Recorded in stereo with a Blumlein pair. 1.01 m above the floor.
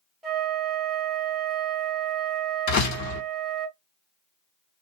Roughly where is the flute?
Ahead right.